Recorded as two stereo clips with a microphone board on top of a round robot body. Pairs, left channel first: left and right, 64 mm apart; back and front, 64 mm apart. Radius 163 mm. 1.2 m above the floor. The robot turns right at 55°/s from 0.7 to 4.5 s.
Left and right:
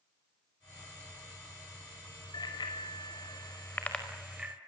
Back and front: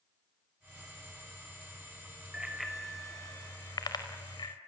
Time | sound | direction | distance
2.3 | a bicycle bell | 75° left | 5 m